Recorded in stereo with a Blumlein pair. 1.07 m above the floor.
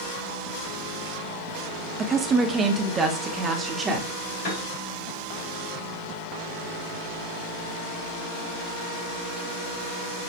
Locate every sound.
2.0 s a woman speaking: 20° right, 0.7 m; by 4.2 s 15° right, 1.9 m
4.4 s a piano: 45° left, 4 m